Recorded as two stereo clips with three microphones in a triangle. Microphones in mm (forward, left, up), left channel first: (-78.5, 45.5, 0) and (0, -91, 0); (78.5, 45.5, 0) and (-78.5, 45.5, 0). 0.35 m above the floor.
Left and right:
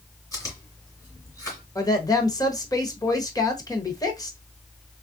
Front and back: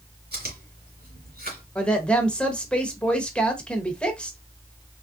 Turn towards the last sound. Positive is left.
turn(degrees=80)